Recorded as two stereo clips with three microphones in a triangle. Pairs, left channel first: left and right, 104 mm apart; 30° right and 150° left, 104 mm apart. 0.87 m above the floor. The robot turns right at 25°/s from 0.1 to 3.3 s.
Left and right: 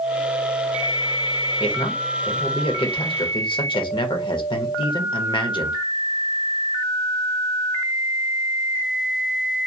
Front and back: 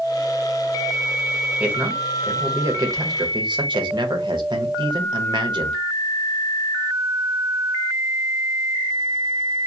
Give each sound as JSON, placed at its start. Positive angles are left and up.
{"t": 1.6, "sound": "a man speaking", "azimuth_deg": 70, "distance_m": 0.7}